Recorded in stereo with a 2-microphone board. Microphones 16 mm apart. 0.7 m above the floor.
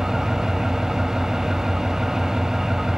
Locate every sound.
0.0 s an engine running: 40° right (ahead or behind), 1.0 m